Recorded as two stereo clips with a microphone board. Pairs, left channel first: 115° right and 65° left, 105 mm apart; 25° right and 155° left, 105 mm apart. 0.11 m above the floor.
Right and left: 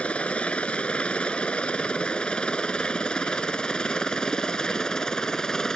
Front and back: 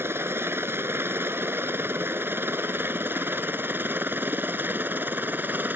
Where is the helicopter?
175° right; by 5.8 s 175° left.